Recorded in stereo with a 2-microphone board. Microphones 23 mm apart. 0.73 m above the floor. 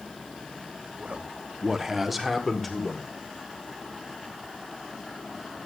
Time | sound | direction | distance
1.0 | a man speaking | 55° right (ahead or behind) | 0.9 m